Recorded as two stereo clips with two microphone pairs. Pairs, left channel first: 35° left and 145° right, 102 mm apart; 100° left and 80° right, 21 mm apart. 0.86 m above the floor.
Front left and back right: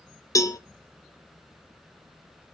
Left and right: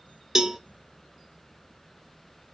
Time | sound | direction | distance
0.3 | a cowbell | 15° right | 0.8 m